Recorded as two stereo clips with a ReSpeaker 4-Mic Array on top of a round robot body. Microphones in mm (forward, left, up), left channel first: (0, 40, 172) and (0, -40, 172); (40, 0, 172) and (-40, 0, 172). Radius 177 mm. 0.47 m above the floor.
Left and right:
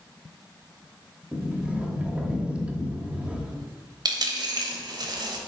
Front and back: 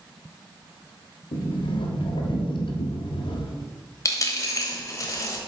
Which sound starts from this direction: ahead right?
A dropped coin, at 4.0 s.